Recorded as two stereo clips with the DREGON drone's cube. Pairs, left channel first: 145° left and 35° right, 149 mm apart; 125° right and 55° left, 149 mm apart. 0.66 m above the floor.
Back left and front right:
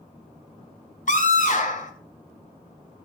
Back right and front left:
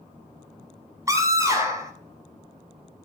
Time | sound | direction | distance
1.1 | a scream | 125° left | 2.5 m